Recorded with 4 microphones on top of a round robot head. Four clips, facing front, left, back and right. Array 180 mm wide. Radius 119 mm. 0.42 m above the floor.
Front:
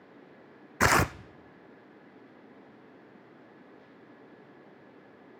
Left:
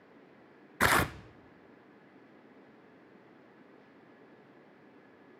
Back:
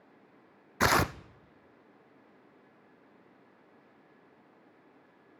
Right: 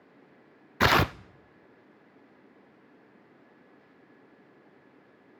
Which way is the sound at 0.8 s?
75° right.